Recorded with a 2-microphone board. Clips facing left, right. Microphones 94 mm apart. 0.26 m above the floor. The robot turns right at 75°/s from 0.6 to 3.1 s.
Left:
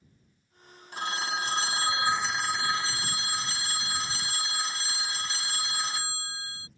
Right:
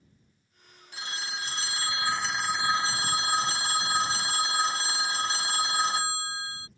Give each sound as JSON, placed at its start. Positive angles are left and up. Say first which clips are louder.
{"t": 0.9, "sound": "a phone ringing", "louder": "left 6 dB", "azimuth_deg": 70}